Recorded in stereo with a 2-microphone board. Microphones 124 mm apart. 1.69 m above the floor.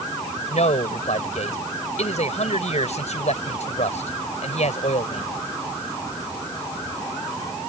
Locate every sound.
0.5 s a man speaking: 65° left (ahead or behind)